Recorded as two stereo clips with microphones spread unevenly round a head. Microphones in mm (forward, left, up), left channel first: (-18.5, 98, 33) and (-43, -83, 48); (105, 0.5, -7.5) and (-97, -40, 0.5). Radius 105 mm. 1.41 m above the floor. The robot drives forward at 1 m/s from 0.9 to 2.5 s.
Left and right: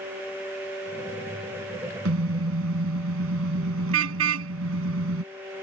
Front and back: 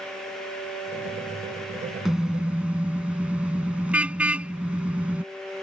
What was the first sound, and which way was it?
A car horn, 80° right.